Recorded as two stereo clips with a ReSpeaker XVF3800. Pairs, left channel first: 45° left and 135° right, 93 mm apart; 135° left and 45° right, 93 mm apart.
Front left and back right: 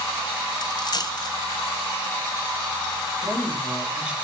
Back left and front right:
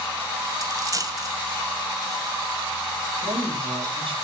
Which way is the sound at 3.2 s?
60° right.